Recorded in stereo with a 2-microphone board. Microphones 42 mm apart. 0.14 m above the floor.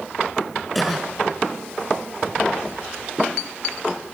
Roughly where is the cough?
Centre.